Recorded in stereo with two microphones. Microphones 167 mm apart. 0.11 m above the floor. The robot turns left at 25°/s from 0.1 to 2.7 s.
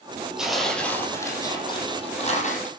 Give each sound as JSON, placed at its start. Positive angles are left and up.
{"t": 0.4, "sound": "tearing paper", "azimuth_deg": -175, "distance_m": 3.5}